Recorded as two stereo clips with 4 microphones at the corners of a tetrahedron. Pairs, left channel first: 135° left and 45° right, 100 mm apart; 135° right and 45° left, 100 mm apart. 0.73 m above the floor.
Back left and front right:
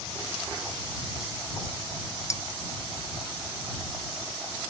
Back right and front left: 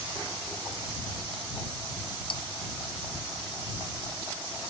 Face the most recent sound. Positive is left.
turn(degrees=-165)